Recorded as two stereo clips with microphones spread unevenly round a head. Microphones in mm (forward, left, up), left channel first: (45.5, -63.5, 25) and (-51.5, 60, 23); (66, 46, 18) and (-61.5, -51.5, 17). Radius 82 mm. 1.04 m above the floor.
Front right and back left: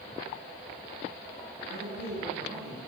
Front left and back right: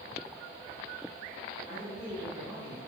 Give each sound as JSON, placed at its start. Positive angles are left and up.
{"t": 1.7, "sound": "a man speaking", "azimuth_deg": 150, "distance_m": 3.5}